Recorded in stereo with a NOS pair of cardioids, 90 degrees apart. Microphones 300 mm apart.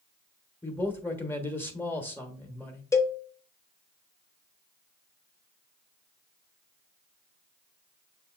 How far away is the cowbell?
About 0.8 m.